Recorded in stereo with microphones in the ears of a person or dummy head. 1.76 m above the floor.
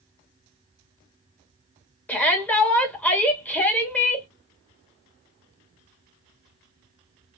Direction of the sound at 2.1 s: 5° left (ahead or behind).